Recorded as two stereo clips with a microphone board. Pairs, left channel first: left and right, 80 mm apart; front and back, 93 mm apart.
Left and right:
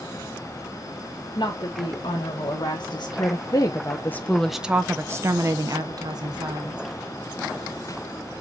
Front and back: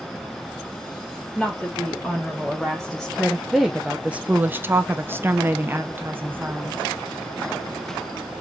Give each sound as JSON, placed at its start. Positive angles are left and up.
{"t": 1.4, "sound": "a woman speaking", "azimuth_deg": 80, "distance_m": 1.9}